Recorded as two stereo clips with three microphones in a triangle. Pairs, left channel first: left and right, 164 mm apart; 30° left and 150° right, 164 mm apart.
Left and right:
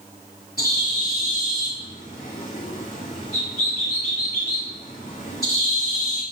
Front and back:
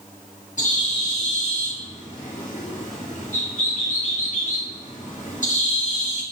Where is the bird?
65° left, 4.5 m.